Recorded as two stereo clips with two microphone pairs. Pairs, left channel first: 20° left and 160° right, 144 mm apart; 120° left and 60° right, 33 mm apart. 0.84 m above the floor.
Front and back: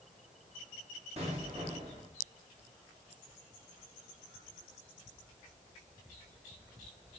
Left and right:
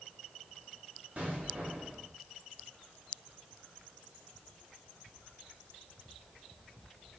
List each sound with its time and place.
1.2 s an explosion: 115° right, 4.5 m